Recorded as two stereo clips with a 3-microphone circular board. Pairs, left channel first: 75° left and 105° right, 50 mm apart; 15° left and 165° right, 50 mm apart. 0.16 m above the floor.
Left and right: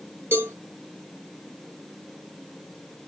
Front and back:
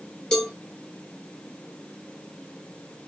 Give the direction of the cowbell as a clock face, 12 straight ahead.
2 o'clock.